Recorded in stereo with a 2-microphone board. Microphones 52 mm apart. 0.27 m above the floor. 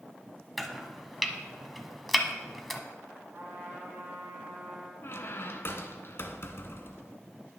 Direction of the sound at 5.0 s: 50° left (ahead or behind).